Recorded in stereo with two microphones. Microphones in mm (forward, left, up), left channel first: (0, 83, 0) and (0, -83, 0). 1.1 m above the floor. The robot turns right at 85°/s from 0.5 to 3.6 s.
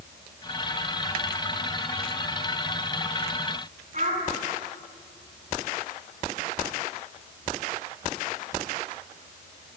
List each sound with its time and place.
3.9 s a child speaking: 50° right (ahead or behind), 7 m